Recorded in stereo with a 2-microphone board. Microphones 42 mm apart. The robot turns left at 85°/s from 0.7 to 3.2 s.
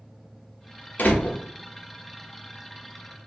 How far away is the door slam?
About 0.9 m.